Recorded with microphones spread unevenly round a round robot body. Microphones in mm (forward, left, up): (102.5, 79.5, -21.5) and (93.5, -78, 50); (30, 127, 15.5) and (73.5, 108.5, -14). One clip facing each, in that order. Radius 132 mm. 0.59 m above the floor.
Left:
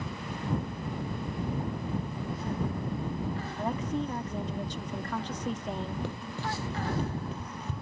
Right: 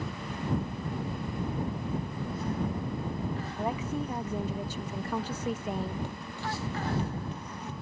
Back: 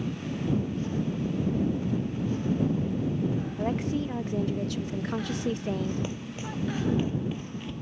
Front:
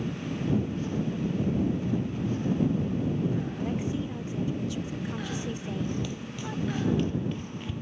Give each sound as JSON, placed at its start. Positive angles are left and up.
{"t": 3.6, "sound": "a woman speaking", "azimuth_deg": 135}
{"t": 6.0, "sound": "running footsteps", "azimuth_deg": 145}